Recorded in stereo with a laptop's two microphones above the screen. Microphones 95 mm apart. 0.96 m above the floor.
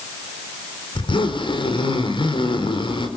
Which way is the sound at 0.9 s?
60° left (ahead or behind).